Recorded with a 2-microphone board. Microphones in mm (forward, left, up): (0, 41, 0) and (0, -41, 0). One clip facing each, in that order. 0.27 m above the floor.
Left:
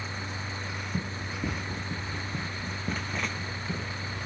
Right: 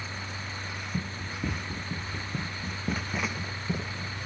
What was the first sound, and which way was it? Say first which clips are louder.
Running footsteps: even; 10° left (ahead or behind).